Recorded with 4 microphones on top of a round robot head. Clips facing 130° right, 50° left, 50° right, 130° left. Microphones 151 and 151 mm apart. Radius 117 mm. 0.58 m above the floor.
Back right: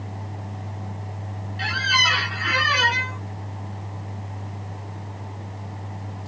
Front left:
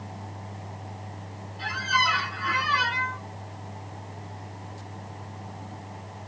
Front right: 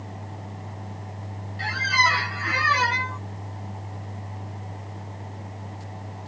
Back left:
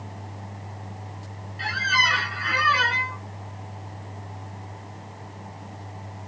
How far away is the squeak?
About 1.7 m.